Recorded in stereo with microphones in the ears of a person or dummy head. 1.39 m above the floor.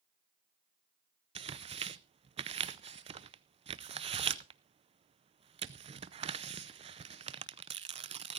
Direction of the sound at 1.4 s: 30° right (ahead or behind).